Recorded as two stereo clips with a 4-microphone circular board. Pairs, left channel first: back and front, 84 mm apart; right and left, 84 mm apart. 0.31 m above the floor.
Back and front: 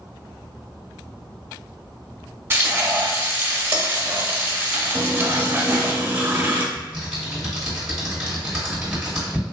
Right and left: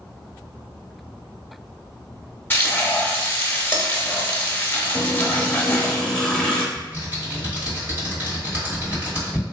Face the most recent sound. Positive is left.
turn(degrees=70)